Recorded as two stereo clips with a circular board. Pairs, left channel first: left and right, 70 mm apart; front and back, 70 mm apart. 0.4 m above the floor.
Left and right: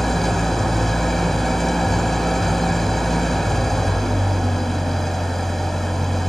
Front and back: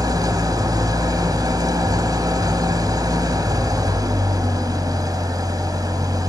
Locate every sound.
0.0 s an engine running: straight behind, 1.9 m